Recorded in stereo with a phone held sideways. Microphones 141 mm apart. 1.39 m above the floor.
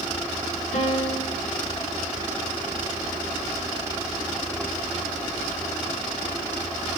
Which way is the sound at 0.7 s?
55° left (ahead or behind).